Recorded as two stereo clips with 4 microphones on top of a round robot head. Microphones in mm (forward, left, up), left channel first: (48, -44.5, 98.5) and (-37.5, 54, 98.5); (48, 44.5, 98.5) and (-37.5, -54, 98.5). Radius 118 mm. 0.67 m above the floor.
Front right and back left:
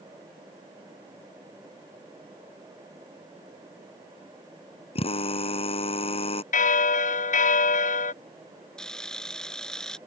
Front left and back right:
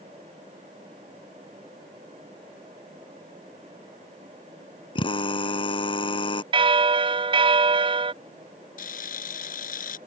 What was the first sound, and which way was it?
A drill, 5° right.